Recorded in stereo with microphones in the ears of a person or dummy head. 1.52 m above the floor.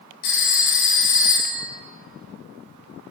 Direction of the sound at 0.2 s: 50° left (ahead or behind).